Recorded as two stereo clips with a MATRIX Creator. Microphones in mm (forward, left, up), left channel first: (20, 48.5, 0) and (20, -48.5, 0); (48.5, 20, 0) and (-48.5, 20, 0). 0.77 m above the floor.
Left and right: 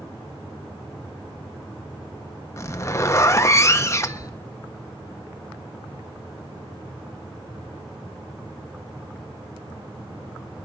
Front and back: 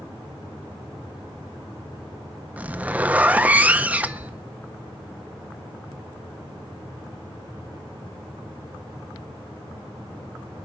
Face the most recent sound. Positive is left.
turn(degrees=120)